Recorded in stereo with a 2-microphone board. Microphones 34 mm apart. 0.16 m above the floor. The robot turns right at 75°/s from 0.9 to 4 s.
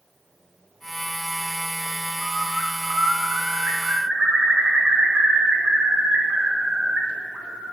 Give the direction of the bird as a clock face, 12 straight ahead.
6 o'clock.